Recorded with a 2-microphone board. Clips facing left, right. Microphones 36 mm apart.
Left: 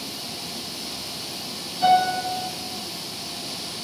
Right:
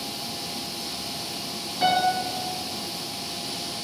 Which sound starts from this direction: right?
A piano, at 1.8 s.